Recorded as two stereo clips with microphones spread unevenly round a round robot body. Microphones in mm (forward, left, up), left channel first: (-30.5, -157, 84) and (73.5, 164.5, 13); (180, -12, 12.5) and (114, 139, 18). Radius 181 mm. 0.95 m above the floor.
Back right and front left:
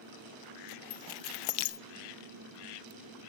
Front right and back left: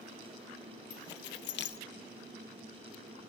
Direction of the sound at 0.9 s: 85° right.